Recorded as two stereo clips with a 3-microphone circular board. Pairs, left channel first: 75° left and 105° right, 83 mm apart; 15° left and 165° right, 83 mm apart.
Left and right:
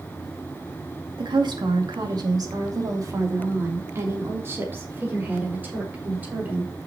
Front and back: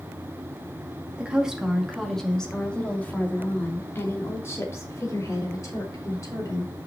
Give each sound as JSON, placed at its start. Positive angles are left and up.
{"t": 1.2, "sound": "a woman speaking", "azimuth_deg": -85, "distance_m": 2.0}